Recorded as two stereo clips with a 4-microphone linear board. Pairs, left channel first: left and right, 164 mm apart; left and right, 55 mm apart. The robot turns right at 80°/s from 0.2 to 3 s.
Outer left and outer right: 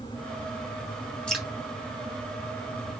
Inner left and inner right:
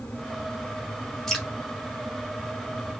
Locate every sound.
1.3 s dripping: 5° left (ahead or behind), 1.9 m; by 1.5 s 10° right (ahead or behind), 1.9 m